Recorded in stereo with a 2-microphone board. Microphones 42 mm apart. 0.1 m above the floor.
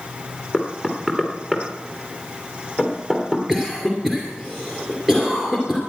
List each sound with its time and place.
0.5 s knocking: 10° right (ahead or behind), 2.5 m
3.5 s a cough: 10° right (ahead or behind), 2.5 m